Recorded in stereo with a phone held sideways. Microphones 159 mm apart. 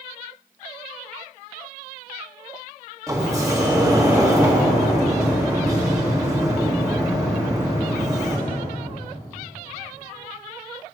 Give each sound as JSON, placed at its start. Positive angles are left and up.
{"t": 3.1, "sound": "a sliding door", "side_deg": -20, "distance_m": 1.7}